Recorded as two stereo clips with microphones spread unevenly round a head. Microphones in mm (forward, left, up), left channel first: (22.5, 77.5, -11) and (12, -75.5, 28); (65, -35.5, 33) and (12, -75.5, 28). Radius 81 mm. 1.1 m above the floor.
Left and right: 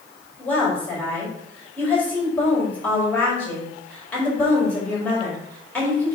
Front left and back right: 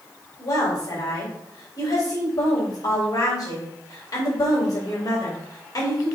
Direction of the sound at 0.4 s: 5° left.